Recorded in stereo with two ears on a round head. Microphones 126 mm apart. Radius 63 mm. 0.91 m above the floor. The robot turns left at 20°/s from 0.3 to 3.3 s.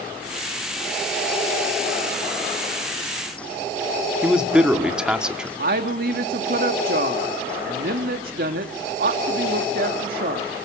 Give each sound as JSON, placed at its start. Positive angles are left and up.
{"t": 4.2, "sound": "a man speaking", "side_deg": -5, "distance_m": 1.5}
{"t": 5.6, "sound": "a woman speaking", "side_deg": -70, "distance_m": 1.8}